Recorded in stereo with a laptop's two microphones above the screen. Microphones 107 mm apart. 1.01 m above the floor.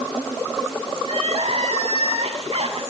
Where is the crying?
70° right (ahead or behind), 7 m.